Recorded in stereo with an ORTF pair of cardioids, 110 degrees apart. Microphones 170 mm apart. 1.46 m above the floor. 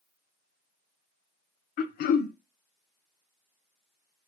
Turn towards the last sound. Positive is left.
turn(degrees=60)